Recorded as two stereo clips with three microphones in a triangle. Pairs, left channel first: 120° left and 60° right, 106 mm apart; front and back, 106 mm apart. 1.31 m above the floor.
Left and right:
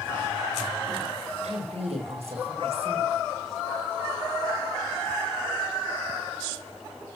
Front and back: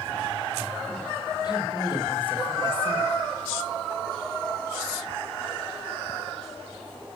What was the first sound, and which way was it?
A woman speaking, 45° right.